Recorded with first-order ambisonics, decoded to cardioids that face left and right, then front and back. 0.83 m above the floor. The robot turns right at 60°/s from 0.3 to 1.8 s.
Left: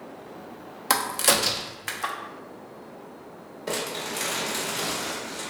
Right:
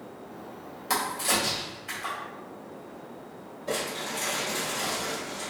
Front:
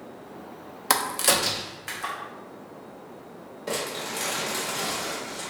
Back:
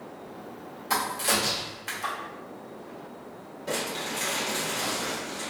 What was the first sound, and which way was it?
A crack, 35° left.